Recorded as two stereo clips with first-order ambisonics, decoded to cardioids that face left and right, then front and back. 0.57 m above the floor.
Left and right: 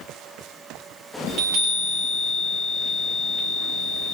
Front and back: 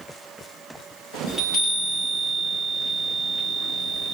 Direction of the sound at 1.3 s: 95° right.